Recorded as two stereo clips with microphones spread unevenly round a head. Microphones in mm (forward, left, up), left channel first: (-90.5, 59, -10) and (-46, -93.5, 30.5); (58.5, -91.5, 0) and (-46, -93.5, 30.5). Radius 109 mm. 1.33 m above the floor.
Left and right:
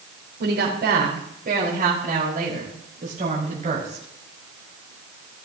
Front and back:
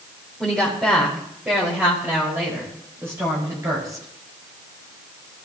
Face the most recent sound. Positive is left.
turn(degrees=-120)